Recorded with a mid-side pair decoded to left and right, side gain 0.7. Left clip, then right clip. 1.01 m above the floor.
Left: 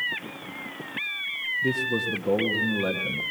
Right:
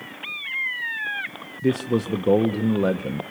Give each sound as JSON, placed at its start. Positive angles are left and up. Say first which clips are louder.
{"t": 1.6, "sound": "a man speaking", "louder": "right 6 dB", "azimuth_deg": -30, "distance_m": 1.0}